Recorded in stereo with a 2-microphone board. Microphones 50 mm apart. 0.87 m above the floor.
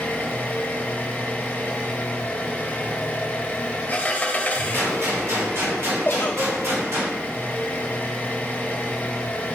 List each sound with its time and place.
0.0 s an engine running: 35° left (ahead or behind), 1.0 m
4.7 s a gunshot: 65° right (ahead or behind), 2.5 m
6.0 s a giggle: 45° left (ahead or behind), 0.9 m